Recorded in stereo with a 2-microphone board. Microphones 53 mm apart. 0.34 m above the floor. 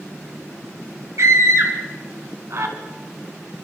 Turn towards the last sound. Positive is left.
turn(degrees=-65)  # may be behind; listen again after turning